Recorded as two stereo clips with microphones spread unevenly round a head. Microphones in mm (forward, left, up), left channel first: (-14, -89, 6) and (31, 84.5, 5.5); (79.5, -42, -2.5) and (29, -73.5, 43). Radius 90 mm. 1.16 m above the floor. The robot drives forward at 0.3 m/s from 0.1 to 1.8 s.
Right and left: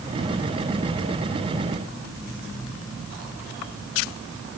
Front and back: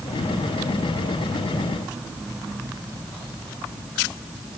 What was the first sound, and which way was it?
Only background noise.